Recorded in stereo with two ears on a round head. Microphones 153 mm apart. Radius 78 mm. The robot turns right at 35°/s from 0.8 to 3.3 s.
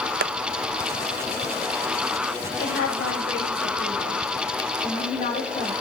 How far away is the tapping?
About 0.5 m.